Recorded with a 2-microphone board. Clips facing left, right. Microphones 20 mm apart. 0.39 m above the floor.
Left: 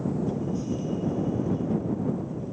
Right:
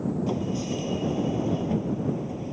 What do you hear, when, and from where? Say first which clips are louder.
0.3 s a sliding door: right 1 dB; 45° right (ahead or behind)